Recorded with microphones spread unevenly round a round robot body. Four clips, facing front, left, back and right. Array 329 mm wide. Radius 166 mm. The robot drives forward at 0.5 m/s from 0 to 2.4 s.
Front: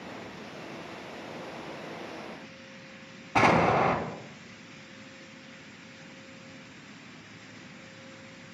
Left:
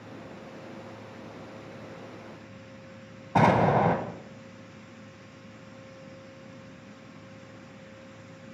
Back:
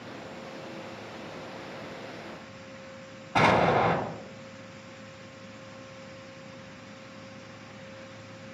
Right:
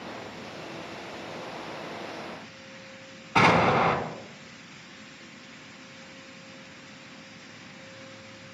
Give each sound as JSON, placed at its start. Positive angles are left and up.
{"t": 3.4, "sound": "an explosion", "azimuth_deg": 85, "distance_m": 1.9}